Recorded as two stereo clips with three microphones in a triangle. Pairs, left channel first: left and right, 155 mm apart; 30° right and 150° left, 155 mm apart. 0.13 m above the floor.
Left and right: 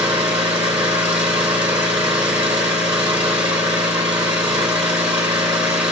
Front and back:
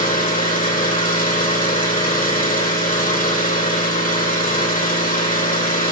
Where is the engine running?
45° right, 3.5 m.